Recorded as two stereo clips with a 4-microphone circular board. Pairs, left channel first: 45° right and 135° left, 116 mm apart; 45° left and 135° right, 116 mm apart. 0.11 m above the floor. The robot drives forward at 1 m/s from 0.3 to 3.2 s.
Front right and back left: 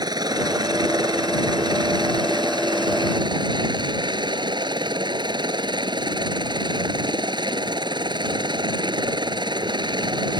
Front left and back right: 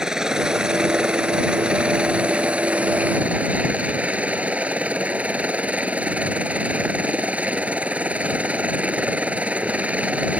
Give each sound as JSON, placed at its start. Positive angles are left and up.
{"t": 0.0, "sound": "a helicopter", "azimuth_deg": 145}